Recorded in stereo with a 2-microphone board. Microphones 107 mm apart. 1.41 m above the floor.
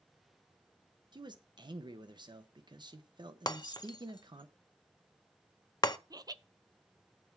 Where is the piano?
No piano in this recording.